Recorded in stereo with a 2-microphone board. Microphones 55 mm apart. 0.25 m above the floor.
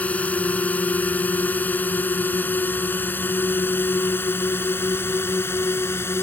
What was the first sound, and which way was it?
A drone, 30° left (ahead or behind).